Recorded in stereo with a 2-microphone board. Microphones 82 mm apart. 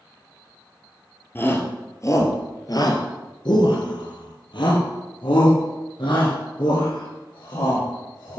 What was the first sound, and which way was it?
A shout, 25° left (ahead or behind).